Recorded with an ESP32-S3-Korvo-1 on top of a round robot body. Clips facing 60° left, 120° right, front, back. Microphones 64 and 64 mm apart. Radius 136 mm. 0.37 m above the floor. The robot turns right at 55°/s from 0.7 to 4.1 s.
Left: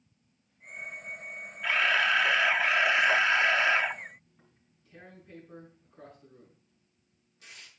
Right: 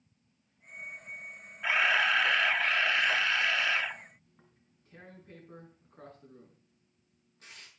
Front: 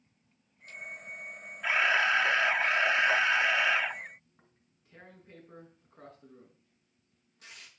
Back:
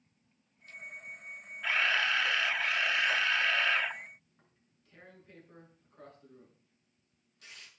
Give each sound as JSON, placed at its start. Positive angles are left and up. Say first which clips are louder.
{"t": 1.6, "sound": "a camera shutter", "louder": "left 1 dB, front 3 dB", "azimuth_deg": -55, "distance_m": 1.3}
{"t": 4.3, "sound": "tearing paper", "louder": "even, front 3 dB", "azimuth_deg": -65, "distance_m": 7.0}